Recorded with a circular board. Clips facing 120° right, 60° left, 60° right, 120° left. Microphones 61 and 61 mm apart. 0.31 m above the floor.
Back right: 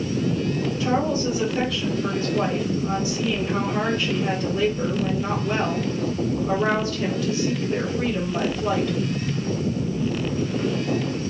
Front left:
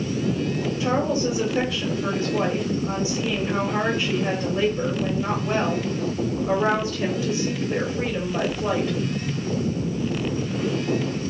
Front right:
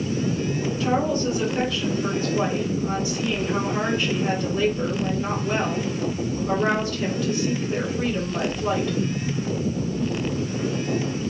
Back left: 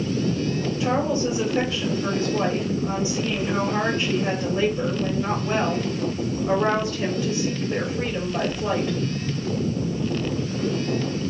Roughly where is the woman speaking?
Left.